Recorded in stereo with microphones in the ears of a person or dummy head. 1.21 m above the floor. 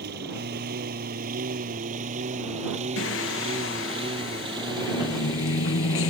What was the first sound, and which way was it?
A lawn mower, 65° right (ahead or behind).